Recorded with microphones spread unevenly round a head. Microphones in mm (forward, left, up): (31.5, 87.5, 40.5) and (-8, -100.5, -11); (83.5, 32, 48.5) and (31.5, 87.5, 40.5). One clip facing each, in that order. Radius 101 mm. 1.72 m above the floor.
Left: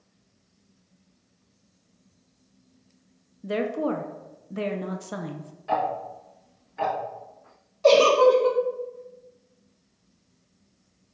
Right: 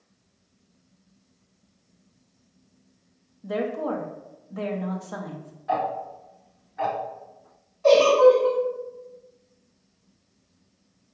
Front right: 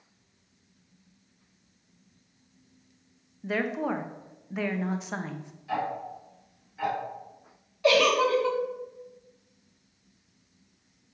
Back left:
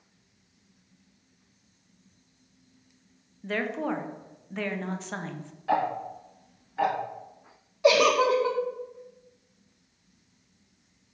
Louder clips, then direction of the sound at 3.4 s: Left 1 dB, front right 1 dB; 35° left.